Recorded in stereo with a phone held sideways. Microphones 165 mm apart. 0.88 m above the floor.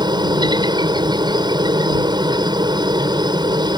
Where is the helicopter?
25° right (ahead or behind).